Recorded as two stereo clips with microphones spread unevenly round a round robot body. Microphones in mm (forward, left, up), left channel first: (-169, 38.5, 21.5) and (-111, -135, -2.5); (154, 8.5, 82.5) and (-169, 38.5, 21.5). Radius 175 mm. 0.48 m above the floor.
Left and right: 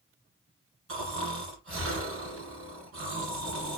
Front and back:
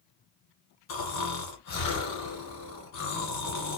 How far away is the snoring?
About 1.8 m.